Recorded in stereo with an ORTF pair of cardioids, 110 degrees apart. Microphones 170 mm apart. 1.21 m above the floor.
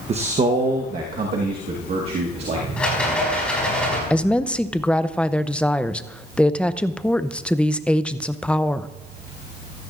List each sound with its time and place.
0.1 s a man speaking: 35° right, 0.9 m; by 2.7 s 65° right, 2.5 m
2.8 s a rattle: 5° left, 5.5 m
4.1 s a woman speaking: 5° left, 0.6 m